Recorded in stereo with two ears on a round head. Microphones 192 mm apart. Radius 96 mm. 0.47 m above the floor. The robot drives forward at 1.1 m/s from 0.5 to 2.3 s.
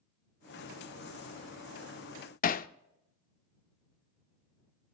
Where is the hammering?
35° left (ahead or behind), 0.6 m.